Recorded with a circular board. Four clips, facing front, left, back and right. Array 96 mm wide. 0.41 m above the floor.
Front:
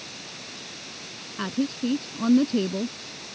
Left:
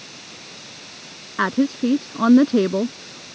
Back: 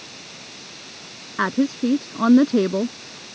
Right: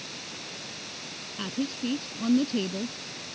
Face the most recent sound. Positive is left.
turn(degrees=125)